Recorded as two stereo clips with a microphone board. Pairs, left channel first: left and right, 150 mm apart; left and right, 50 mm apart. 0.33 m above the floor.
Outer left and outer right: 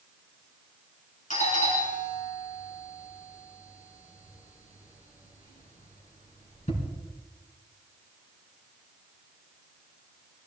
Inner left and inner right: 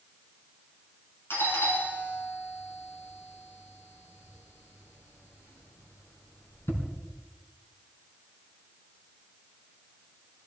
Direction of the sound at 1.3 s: 65° left (ahead or behind).